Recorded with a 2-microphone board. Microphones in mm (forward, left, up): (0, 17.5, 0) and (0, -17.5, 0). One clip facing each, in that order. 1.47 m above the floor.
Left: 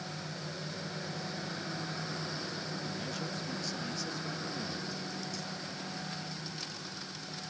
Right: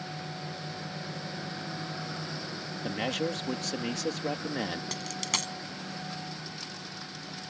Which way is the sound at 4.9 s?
85° right.